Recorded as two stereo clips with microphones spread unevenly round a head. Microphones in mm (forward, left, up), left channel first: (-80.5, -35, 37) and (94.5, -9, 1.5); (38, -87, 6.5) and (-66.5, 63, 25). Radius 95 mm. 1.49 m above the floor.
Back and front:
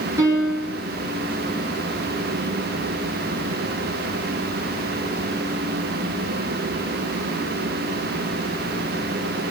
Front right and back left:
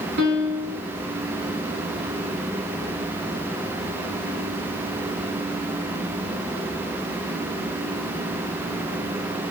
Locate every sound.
0.2 s a piano: 85° left, 7 m